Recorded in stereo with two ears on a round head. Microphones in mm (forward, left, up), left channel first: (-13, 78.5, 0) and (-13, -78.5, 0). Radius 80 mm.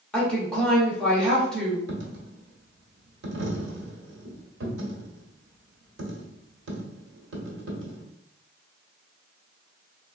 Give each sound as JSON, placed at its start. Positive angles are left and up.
{"t": 0.1, "sound": "a woman speaking", "side_deg": 5, "distance_m": 1.6}
{"t": 1.9, "sound": "a dropped coin", "side_deg": -80, "distance_m": 1.2}